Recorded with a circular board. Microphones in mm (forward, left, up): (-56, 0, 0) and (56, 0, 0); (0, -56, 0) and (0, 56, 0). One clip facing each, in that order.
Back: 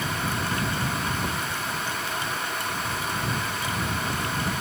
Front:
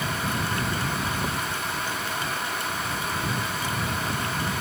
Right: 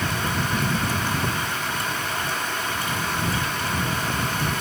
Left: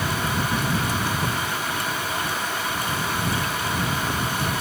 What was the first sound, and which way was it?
Only background noise.